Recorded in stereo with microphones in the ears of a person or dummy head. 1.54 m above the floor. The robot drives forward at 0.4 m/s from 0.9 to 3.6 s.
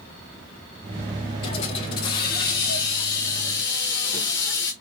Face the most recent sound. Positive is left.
turn(degrees=15)  # may be behind; listen again after turning